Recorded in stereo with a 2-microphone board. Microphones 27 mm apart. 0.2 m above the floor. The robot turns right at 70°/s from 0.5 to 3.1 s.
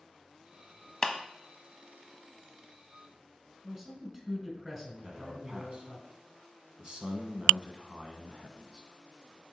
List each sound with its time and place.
1.0 s a clap: 30° left (ahead or behind), 0.9 m
3.6 s a man speaking: 15° right (ahead or behind), 2.5 m
5.0 s a man speaking: 35° right (ahead or behind), 1.4 m